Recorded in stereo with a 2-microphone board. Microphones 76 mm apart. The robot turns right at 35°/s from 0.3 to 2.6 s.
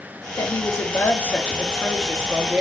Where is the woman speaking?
125° left, 0.7 m; by 2.6 s 160° right, 0.7 m.